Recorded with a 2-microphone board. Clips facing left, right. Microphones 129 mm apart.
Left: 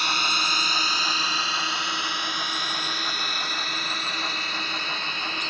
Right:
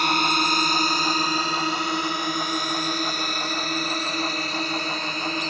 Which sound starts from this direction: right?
A drone, at 0.0 s.